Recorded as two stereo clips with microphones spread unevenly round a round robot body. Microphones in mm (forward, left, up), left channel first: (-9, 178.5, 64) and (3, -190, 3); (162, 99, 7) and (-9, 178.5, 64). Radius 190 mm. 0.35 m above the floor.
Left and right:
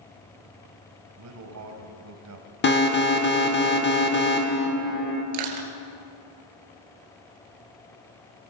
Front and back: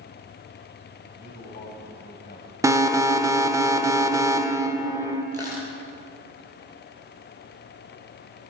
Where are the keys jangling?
I don't hear keys jangling.